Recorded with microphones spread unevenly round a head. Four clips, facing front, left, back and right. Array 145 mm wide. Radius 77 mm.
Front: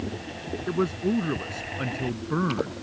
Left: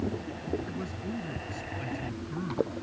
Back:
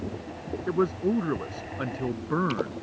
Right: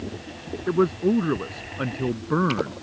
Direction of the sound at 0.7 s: 100° right.